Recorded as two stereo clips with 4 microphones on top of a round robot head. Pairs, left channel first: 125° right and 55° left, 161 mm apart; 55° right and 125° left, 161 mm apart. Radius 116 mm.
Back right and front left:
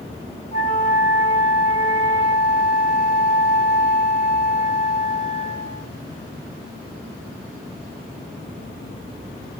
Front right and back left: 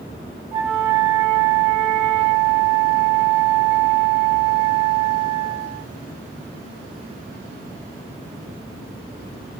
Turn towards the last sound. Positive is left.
turn(degrees=-175)